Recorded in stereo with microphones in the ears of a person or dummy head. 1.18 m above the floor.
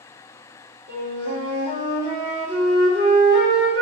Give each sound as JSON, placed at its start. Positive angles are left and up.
{"t": 0.9, "sound": "a flute", "side_deg": -40, "distance_m": 2.0}